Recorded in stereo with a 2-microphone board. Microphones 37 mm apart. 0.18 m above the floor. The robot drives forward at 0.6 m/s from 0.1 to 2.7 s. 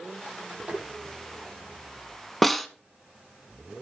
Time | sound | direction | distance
0.7 | tapping | 45° right (ahead or behind) | 4.5 m
2.4 | a snare drum | centre (ahead or behind) | 0.6 m